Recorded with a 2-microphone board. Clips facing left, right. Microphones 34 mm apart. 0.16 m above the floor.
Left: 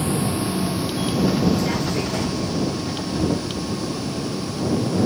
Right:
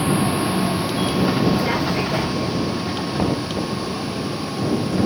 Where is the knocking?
45° right (ahead or behind).